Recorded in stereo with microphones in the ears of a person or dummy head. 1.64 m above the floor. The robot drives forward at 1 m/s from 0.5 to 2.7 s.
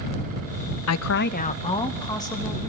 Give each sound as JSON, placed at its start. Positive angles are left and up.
{"t": 0.9, "sound": "a woman speaking", "side_deg": 80, "distance_m": 0.5}